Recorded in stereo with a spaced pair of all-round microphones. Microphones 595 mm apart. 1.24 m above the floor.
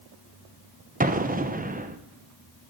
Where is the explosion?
15° right (ahead or behind), 0.5 m.